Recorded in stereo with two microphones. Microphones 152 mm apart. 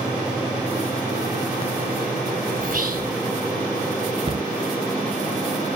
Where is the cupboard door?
40° right (ahead or behind), 1.0 m.